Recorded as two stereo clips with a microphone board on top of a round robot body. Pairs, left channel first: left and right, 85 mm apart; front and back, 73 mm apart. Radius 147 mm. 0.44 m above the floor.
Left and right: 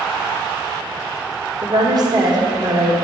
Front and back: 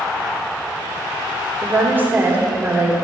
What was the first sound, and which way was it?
A woman speaking, 120° right.